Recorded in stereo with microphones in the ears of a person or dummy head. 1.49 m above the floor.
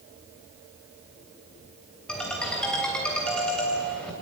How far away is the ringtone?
About 3 m.